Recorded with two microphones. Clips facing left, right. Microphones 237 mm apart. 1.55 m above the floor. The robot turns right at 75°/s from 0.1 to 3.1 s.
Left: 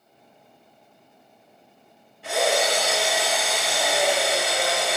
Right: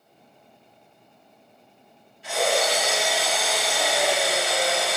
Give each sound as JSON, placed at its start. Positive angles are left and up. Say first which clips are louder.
{"t": 2.2, "sound": "a drill", "louder": "left 1 dB", "azimuth_deg": 65, "distance_m": 2.5}